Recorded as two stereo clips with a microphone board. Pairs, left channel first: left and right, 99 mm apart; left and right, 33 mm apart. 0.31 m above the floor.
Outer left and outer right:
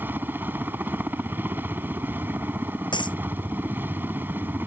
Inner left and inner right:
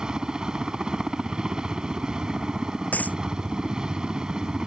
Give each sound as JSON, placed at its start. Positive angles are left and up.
{"t": 0.0, "sound": "a helicopter", "side_deg": -20}
{"t": 2.9, "sound": "a dropped coin", "side_deg": 55}